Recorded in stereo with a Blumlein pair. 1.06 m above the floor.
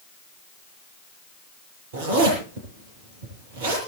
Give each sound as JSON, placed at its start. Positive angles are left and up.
{"t": 1.9, "sound": "a zipper", "azimuth_deg": -60, "distance_m": 10.0}